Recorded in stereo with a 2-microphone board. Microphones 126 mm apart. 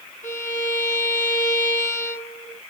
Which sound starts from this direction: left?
A violin, at 0.2 s.